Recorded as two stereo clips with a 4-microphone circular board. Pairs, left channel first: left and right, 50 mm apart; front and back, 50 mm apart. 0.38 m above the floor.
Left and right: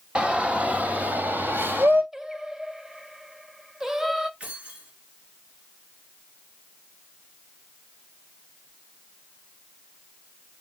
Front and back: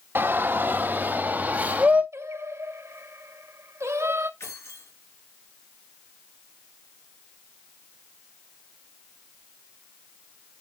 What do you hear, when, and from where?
0.1 s a shout: 155° right, 2 m; by 2.0 s 125° right, 2.5 m
2.1 s singing: 170° right, 0.9 m
4.4 s keys jangling: 20° right, 4 m